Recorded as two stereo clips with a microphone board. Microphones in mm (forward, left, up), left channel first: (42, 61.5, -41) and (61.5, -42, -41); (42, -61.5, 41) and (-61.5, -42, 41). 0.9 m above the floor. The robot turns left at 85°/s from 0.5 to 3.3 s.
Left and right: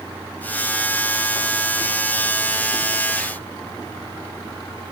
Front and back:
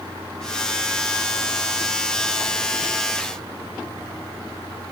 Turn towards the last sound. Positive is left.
No sound to turn to.